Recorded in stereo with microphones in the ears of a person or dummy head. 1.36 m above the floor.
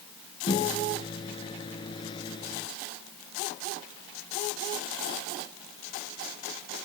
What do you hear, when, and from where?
0.5 s a microwave: 25° left (ahead or behind)